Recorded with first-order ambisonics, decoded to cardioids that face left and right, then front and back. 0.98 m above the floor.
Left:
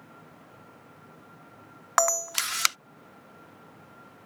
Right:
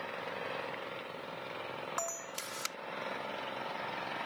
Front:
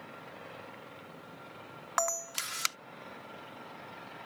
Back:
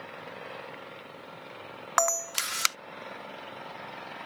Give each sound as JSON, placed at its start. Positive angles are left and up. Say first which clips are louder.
{"t": 0.0, "sound": "an engine running", "louder": "right 12 dB, back 6 dB", "azimuth_deg": -115}
{"t": 2.0, "sound": "a camera shutter", "louder": "left 19 dB, back 6 dB", "azimuth_deg": 115}